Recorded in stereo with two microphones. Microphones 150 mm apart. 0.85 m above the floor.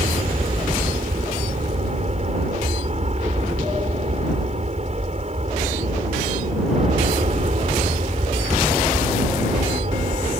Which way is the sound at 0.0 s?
45° right (ahead or behind).